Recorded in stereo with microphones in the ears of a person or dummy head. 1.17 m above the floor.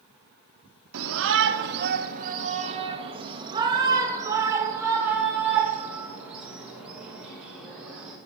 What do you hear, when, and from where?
0.9 s a shout: 65° right (ahead or behind), 0.8 m; by 8.2 s 5° right (ahead or behind), 3.5 m